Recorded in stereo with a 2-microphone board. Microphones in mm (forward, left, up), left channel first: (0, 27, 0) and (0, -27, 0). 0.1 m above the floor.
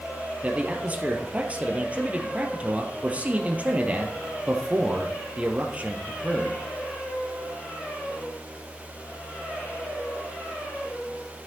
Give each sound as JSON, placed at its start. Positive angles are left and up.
{"t": 0.4, "sound": "a man speaking", "side_deg": -25, "distance_m": 1.9}